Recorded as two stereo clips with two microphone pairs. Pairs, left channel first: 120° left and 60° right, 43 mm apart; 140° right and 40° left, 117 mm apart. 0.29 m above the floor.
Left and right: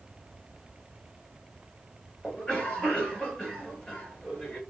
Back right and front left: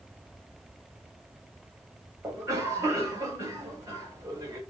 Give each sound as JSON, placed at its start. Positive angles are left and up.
{"t": 2.2, "sound": "a cough", "azimuth_deg": 80, "distance_m": 1.6}